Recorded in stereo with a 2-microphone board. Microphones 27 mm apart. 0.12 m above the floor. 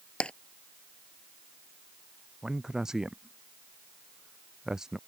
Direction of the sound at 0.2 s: 45° left (ahead or behind).